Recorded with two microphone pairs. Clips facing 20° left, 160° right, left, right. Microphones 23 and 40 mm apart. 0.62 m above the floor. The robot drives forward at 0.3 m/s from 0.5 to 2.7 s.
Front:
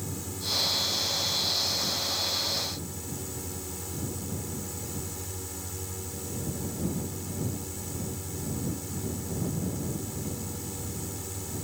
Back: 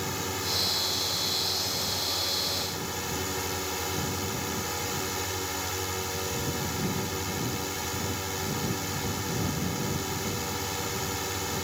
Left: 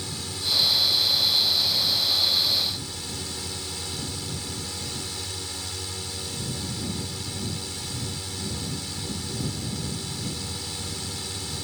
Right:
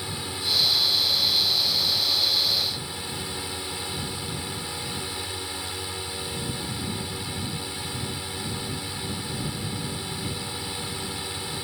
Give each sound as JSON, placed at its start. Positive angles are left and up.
{"t": 0.0, "sound": "a drone", "azimuth_deg": -150}